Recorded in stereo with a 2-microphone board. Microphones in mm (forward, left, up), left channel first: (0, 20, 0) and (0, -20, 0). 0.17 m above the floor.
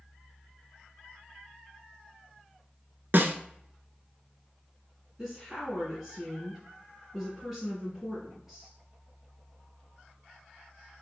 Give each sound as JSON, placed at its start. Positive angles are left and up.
{"t": 3.1, "sound": "a snare drum", "side_deg": -60, "distance_m": 0.5}
{"t": 5.2, "sound": "a woman speaking", "side_deg": -10, "distance_m": 1.8}